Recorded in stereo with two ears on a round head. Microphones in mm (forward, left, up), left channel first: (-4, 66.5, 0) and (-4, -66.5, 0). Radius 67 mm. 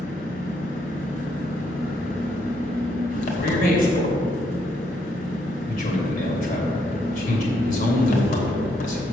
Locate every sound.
0.0 s an engine running: 60° left (ahead or behind), 1.5 m
3.4 s a man speaking: 55° left (ahead or behind), 2.5 m